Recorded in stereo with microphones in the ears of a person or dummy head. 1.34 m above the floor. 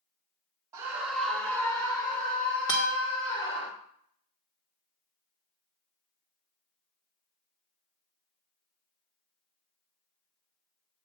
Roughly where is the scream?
Centre.